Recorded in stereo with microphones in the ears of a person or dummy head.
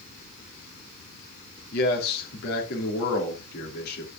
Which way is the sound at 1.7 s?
55° left (ahead or behind).